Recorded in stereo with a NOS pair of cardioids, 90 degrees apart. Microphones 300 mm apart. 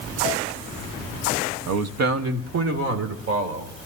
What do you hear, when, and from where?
1.7 s a man speaking: 65° right, 1.1 m; by 3.9 s 50° right, 4.5 m